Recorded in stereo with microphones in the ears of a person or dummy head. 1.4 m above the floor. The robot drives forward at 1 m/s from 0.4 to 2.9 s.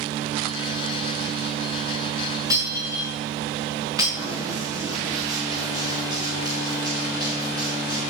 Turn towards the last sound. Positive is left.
turn(degrees=-20)  # may be behind; listen again after turning